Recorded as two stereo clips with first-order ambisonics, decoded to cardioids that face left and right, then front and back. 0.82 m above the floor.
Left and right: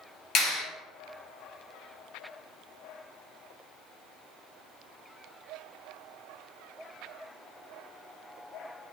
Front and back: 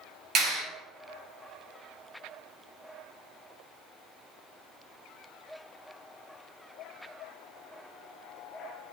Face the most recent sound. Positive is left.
turn(degrees=130)